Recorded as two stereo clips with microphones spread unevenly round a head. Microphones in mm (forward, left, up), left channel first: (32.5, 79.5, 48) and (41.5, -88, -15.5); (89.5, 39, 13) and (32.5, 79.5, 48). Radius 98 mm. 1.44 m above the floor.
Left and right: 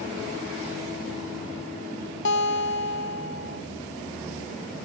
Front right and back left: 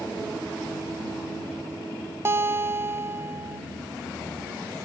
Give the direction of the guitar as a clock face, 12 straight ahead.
9 o'clock.